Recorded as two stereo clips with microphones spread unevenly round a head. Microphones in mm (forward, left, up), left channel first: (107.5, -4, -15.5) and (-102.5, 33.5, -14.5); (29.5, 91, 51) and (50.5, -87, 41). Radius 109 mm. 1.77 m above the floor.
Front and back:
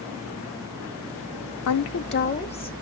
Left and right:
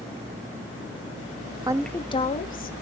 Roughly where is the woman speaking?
Ahead.